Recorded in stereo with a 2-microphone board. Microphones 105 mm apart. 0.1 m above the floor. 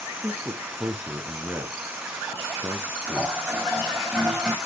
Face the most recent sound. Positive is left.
turn(degrees=-5)  # may be behind; listen again after turning